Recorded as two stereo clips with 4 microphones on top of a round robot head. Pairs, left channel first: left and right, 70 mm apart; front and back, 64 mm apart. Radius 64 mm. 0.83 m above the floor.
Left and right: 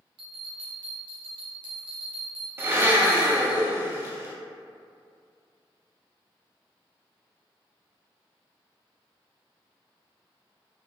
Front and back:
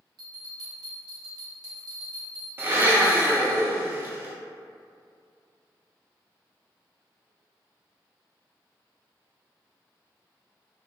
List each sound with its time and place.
0.2 s a bell: 125° right, 0.5 m
2.6 s a blender: 135° right, 0.5 m